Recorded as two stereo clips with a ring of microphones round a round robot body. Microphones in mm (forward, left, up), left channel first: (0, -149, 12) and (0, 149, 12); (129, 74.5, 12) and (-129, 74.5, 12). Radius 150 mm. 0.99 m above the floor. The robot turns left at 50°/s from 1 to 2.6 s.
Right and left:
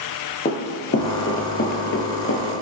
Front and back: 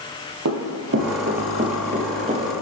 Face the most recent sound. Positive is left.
turn(degrees=-125)